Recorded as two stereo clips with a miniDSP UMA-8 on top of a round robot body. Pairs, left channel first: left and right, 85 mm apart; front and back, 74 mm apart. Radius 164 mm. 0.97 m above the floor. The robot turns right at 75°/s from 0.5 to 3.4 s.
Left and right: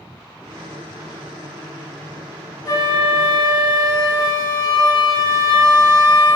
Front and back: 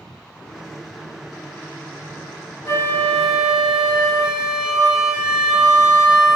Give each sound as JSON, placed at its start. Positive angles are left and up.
{"t": 2.6, "sound": "a flute", "azimuth_deg": 45, "distance_m": 1.7}